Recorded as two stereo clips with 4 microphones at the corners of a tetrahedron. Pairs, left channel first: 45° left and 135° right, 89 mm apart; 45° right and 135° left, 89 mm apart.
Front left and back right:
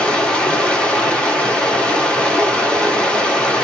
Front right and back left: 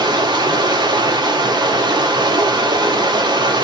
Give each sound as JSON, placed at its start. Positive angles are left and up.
{"t": 0.0, "sound": "running water", "azimuth_deg": 120, "distance_m": 0.9}